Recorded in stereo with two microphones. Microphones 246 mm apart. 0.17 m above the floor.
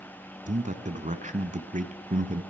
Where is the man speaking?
30° right (ahead or behind), 1.2 m.